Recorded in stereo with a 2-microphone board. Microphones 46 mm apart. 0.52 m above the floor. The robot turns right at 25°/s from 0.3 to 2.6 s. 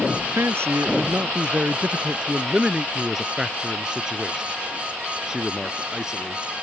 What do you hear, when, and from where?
0.1 s a man speaking: 70° right (ahead or behind); by 6.4 s 15° right (ahead or behind)